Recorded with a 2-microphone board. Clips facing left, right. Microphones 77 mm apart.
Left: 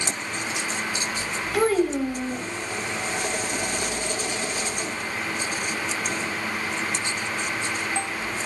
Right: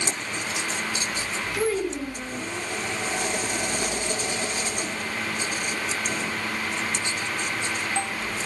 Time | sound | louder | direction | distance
1.5 | a child speaking | left 5 dB | 55° left (ahead or behind) | 5.5 m